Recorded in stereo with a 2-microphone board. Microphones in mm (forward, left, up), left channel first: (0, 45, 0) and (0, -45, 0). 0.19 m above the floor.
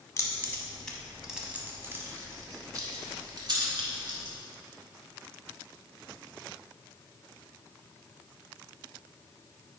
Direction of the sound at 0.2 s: 30° left (ahead or behind).